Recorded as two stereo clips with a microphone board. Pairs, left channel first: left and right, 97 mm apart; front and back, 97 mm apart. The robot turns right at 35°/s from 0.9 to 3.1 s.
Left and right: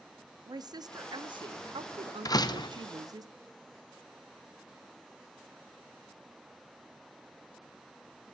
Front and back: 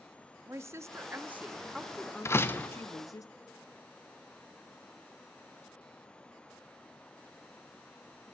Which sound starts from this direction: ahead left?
A door slam, at 2.2 s.